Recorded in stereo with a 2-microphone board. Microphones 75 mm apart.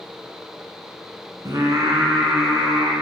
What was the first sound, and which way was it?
Singing, 55° right (ahead or behind).